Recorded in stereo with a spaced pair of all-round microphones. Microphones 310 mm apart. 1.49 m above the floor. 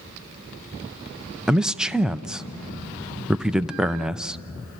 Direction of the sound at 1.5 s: Centre (ahead or behind).